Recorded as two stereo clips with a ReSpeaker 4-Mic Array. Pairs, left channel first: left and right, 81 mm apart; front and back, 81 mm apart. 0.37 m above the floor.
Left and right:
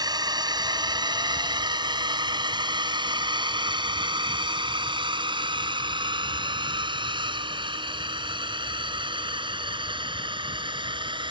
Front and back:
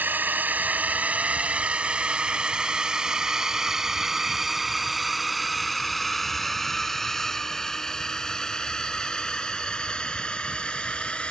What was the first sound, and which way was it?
A drone, 115° right.